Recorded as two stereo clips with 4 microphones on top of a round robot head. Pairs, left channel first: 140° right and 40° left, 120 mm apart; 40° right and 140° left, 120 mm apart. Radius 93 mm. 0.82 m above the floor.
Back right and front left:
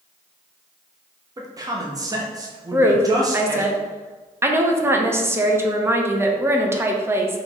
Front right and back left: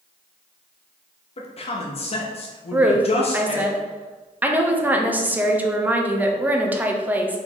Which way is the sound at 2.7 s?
80° left.